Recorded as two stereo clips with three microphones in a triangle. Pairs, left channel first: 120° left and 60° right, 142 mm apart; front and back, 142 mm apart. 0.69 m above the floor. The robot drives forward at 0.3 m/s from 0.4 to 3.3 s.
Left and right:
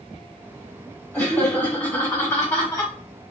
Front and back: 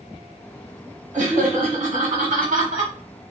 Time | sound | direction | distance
1.1 | laughter | 170° right | 1.6 m